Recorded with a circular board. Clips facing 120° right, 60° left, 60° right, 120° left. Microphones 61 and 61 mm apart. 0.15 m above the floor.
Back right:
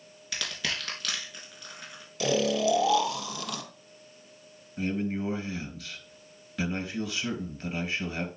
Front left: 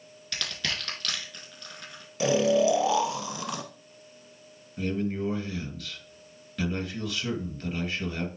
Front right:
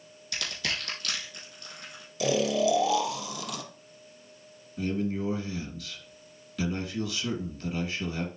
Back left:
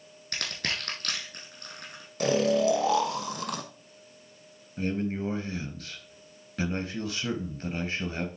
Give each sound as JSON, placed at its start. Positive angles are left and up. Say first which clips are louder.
{"t": 0.3, "sound": "crushing", "louder": "even, even", "azimuth_deg": 155, "distance_m": 3.5}
{"t": 2.2, "sound": "snoring", "louder": "front left 4 dB, back left 2 dB", "azimuth_deg": 115, "distance_m": 1.1}
{"t": 4.8, "sound": "a man speaking", "louder": "front left 1 dB, even", "azimuth_deg": 160, "distance_m": 2.0}